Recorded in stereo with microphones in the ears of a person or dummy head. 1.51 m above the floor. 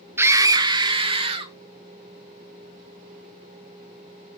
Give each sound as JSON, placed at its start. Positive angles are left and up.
{"t": 0.2, "sound": "a scream", "side_deg": -10, "distance_m": 0.8}